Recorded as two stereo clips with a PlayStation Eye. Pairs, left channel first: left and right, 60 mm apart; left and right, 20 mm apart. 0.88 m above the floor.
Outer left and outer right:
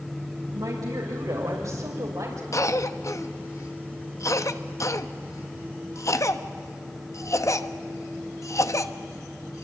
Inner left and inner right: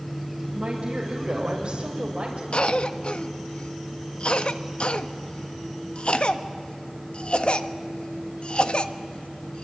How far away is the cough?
About 1.2 m.